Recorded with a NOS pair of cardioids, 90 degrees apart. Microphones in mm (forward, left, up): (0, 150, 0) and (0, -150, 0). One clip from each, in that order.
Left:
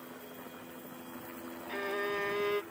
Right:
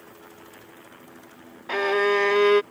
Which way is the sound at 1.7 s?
60° right.